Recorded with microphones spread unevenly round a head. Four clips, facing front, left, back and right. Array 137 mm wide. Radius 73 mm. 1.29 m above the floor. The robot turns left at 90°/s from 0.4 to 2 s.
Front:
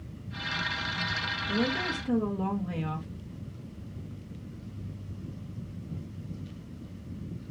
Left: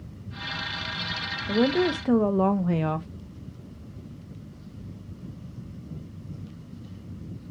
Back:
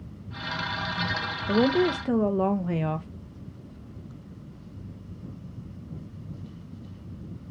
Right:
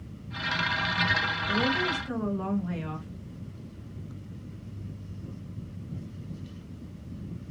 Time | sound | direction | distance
1.5 | a woman speaking | 165° left | 0.6 m